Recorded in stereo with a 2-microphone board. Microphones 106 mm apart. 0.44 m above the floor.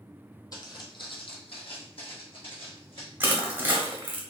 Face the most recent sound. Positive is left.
turn(degrees=-20)  # may be behind; listen again after turning